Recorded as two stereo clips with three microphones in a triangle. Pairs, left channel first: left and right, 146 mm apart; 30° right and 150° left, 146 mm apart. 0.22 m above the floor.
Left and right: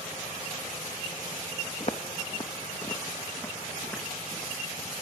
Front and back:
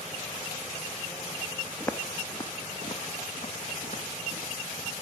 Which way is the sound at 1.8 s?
50° left.